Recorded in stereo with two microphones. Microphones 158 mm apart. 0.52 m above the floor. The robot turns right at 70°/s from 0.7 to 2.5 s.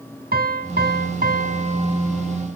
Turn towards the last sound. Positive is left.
turn(degrees=15)